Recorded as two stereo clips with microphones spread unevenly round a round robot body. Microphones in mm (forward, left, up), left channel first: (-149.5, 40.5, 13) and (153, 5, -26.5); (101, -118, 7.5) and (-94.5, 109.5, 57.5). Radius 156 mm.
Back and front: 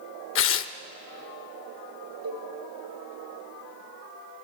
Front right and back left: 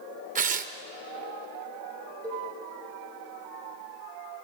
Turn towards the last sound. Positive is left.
turn(degrees=40)